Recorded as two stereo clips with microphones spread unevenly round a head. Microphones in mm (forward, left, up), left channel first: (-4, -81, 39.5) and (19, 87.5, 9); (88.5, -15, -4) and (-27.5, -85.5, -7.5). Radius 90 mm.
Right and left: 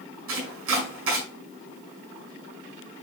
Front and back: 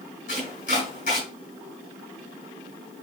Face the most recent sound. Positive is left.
turn(degrees=85)